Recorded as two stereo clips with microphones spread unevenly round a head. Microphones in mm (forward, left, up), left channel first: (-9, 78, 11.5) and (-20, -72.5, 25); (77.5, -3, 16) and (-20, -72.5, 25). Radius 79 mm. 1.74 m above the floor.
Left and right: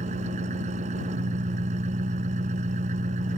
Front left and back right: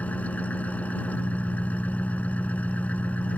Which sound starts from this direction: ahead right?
An engine running, at 0.0 s.